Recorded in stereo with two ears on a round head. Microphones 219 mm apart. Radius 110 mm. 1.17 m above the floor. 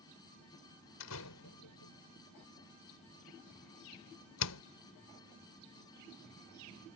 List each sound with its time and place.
1.0 s a door slam: 75° left (ahead or behind)